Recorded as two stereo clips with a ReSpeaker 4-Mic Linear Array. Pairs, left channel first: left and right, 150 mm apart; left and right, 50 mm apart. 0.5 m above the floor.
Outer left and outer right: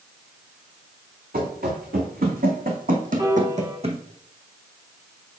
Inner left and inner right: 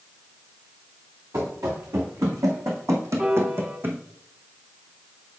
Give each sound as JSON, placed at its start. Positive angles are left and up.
{"t": 1.3, "sound": "running footsteps", "side_deg": -70, "distance_m": 2.0}
{"t": 3.2, "sound": "a piano", "side_deg": -25, "distance_m": 1.2}